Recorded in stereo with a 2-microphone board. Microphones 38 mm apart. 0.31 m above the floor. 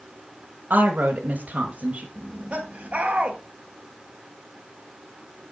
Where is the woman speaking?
50° right (ahead or behind), 1.3 m; by 2.0 s 30° right (ahead or behind), 1.2 m.